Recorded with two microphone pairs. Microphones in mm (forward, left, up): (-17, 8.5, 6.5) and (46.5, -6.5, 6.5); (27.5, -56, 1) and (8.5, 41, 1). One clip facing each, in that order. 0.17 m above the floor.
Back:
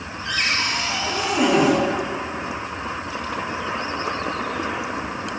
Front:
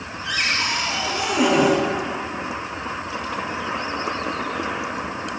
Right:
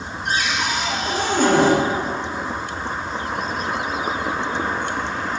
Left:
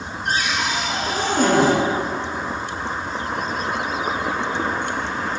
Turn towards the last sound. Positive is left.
turn(degrees=65)